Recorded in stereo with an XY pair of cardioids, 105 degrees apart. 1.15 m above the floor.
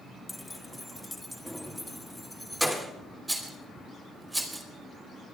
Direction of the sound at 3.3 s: 10° right.